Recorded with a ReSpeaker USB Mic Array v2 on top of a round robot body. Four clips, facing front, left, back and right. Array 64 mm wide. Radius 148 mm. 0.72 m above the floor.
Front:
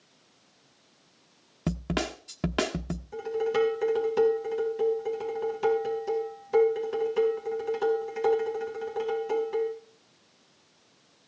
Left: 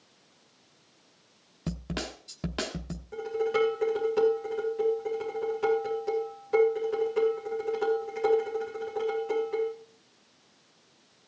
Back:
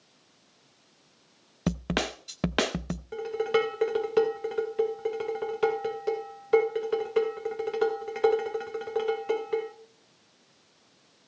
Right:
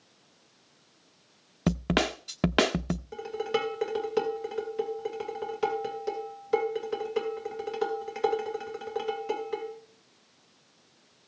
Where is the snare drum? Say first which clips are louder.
Right 9 dB, back 1 dB; 110° right, 0.8 m.